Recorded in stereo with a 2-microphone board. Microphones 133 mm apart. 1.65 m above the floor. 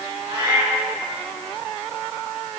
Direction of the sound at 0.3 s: 40° right (ahead or behind).